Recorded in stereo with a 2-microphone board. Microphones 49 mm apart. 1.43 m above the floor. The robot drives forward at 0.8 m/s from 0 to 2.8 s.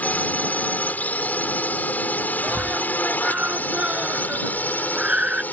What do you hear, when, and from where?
0.0 s a drone: 35° left (ahead or behind); by 5.5 s 40° left (ahead or behind)
2.4 s a scream: 30° right (ahead or behind)